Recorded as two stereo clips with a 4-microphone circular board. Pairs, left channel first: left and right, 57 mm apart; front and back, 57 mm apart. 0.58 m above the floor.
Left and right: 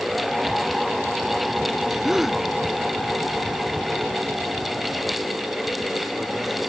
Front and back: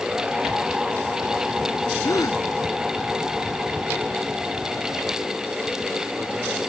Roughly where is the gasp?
Ahead.